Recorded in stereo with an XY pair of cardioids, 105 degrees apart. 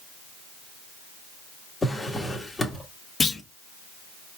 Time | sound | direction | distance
1.8 | a drawer | 10° left | 1.6 m
3.2 | a clunk | 30° left | 1.0 m